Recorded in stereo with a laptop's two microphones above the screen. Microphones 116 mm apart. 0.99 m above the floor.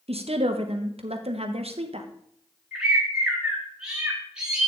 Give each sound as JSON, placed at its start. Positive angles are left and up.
{"t": 0.1, "sound": "a woman speaking", "side_deg": -60, "distance_m": 1.0}
{"t": 2.7, "sound": "a bird", "side_deg": -10, "distance_m": 1.7}